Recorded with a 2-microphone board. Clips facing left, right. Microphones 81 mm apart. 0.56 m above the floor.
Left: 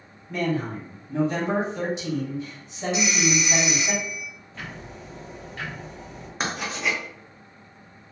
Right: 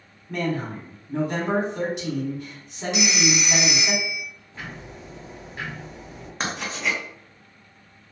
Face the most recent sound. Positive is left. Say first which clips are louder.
# even
turn(degrees=5)  # may be behind; listen again after turning